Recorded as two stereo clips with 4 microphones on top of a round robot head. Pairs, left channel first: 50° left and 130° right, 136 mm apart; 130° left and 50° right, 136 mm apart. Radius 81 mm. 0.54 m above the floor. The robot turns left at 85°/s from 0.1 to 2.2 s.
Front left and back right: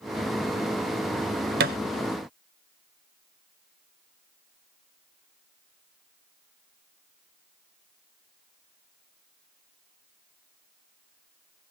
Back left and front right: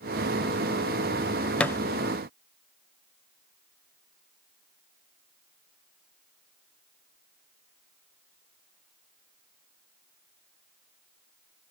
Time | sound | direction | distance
1.6 | a thud | 145° right | 0.6 m